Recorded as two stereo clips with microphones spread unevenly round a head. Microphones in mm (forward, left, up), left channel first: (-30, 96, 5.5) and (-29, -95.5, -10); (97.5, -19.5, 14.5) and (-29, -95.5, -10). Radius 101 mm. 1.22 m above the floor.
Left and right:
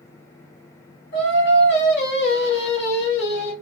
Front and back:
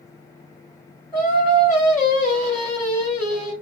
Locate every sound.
1.1 s singing: 115° left, 1.7 m